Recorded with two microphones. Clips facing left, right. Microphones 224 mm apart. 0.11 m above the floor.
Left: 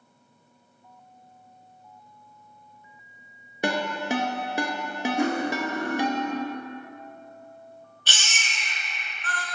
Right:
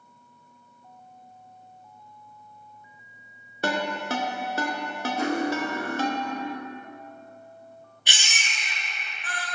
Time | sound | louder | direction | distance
3.6 | a ringtone | left 1 dB | 15° left (ahead or behind) | 0.5 m
5.2 | cutlery clinking | right 1 dB | 15° left (ahead or behind) | 1.4 m
8.1 | a baby crying | even | 15° right (ahead or behind) | 0.6 m